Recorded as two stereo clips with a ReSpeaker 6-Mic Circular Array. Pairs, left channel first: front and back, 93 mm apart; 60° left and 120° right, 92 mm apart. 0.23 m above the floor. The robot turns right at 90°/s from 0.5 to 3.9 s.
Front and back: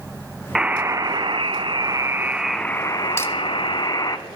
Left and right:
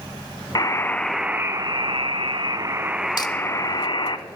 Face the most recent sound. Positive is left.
turn(degrees=115)